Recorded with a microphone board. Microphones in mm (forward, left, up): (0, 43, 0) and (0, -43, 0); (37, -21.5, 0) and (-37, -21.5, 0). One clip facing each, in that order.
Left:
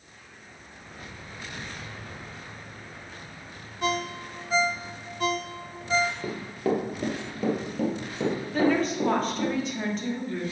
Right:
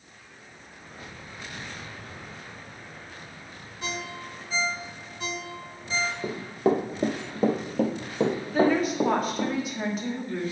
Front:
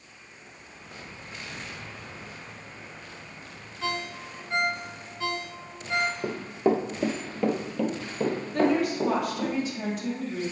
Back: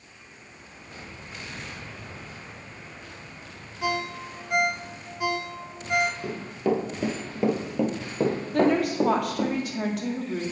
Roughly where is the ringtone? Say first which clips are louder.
Left 7 dB, back 4 dB; left.